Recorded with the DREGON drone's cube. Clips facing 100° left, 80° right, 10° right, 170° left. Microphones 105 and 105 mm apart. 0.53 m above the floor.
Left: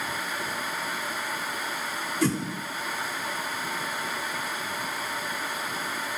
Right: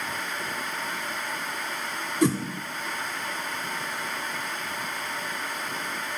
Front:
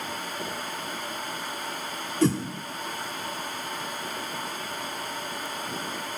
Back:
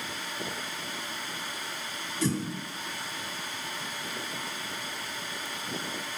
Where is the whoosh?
10° right, 0.6 m.